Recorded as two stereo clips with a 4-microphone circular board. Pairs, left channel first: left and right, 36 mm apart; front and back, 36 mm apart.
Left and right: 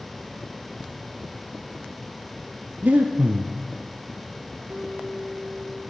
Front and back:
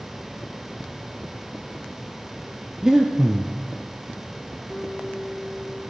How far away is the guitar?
About 3.5 m.